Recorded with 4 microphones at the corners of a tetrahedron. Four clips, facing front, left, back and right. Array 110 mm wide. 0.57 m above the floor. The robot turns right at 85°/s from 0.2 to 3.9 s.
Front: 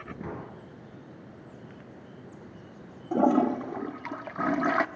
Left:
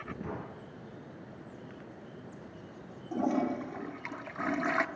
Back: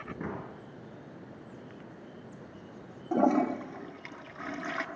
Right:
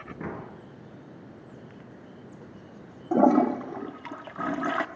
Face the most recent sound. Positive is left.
turn(degrees=-25)